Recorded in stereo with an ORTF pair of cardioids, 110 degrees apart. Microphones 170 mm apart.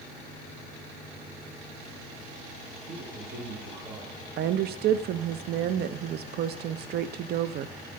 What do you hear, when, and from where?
2.9 s a man speaking: 50° right, 7.5 m; by 4.2 s 45° right, 8.5 m
4.4 s a woman speaking: 60° right, 0.6 m